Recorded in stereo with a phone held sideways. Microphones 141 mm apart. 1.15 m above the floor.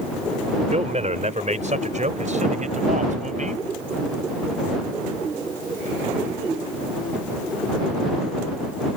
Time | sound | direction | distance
0.7 | a man speaking | 55° right (ahead or behind) | ?